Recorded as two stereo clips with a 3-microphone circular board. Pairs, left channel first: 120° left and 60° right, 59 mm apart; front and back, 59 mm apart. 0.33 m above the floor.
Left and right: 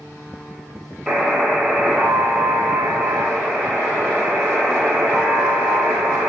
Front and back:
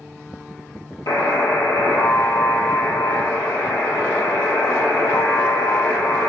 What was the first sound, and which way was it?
A buzzer, 25° left.